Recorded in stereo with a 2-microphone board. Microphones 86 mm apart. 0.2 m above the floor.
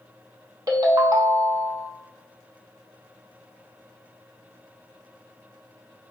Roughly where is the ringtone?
Right.